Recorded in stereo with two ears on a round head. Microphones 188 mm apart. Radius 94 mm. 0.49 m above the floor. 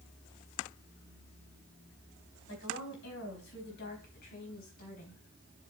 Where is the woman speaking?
65° left (ahead or behind), 4 m; by 5.2 s 40° left (ahead or behind), 4 m.